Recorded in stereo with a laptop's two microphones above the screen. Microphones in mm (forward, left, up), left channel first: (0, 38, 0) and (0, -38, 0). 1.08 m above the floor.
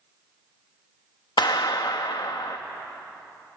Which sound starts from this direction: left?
A clap, at 1.4 s.